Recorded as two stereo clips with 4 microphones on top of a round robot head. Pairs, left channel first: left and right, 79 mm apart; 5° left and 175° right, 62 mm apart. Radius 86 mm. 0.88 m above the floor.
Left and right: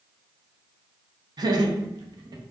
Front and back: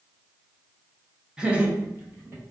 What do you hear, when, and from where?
1.4 s laughter: 100° right, 0.8 m; by 2.4 s 125° right, 1.1 m